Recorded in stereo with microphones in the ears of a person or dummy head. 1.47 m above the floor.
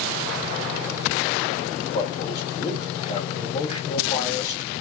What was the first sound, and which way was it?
A man speaking, 35° left (ahead or behind).